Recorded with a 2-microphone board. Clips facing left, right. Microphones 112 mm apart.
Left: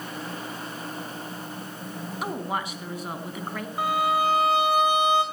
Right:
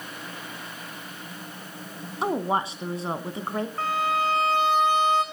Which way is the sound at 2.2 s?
30° right (ahead or behind).